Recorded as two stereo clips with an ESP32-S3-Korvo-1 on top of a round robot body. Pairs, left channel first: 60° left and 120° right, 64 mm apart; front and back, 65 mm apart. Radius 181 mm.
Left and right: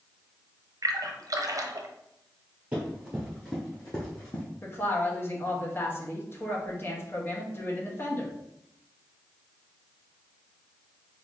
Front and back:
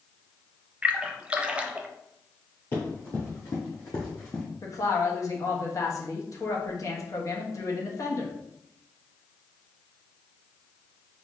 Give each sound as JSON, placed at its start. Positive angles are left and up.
{"t": 0.8, "sound": "a splash", "azimuth_deg": -110, "distance_m": 0.7}
{"t": 2.7, "sound": "running footsteps", "azimuth_deg": -50, "distance_m": 1.2}
{"t": 4.6, "sound": "a woman speaking", "azimuth_deg": 15, "distance_m": 1.4}